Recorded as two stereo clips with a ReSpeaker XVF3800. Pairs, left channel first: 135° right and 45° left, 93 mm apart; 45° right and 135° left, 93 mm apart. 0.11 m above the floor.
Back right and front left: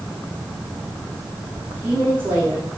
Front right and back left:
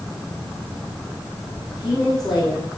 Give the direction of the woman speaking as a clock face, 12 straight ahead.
12 o'clock.